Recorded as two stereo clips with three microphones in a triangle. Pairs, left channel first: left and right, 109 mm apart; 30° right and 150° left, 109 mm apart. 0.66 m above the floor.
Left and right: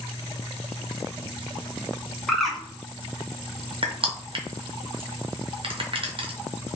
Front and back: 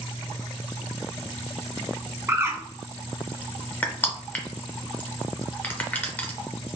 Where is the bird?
175° left, 0.7 m.